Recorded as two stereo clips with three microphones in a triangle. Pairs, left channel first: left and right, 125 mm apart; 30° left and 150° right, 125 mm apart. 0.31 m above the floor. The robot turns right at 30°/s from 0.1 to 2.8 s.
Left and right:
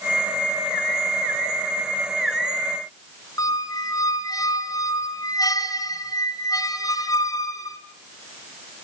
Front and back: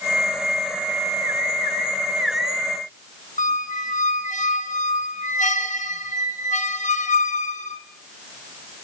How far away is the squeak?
About 1.5 m.